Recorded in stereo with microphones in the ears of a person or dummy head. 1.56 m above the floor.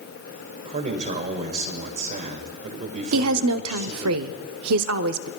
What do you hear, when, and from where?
0.7 s a man speaking: 40° right (ahead or behind), 1.6 m
3.1 s a woman speaking: 75° right (ahead or behind), 0.6 m